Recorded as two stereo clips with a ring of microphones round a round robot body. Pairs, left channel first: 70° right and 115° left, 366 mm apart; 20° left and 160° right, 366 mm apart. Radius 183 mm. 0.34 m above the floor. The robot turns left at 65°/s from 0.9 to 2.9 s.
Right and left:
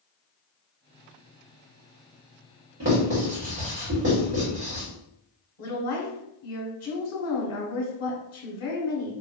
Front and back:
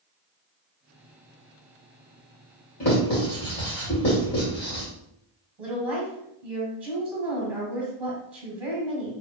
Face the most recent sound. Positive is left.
turn(degrees=-75)